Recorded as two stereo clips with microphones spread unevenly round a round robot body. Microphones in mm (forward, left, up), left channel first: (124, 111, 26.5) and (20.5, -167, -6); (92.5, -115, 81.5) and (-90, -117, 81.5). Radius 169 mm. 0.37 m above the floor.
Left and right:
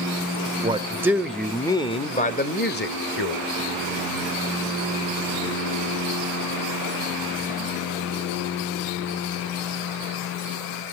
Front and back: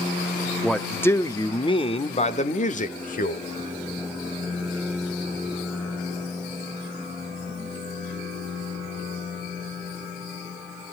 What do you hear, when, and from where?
0.6 s a man speaking: 85° right, 1.1 m; by 3.4 s 25° left, 1.6 m